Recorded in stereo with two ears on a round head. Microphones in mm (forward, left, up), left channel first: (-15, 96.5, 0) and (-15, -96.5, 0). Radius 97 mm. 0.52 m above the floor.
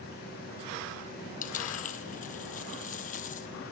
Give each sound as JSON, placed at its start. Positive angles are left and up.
{"t": 1.4, "sound": "a dropped coin", "side_deg": 40, "distance_m": 1.7}